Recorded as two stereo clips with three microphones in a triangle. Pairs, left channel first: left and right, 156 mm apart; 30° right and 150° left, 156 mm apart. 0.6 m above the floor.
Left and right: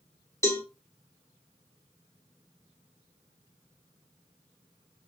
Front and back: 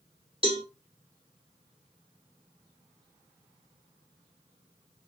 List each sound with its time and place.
0.4 s a cowbell: 150° left, 1.4 m